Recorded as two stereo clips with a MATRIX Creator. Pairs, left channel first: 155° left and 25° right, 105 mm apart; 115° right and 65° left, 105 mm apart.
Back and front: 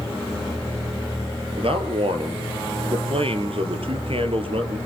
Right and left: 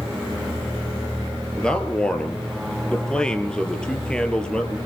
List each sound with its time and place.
1.6 s a man speaking: 30° right, 3.5 m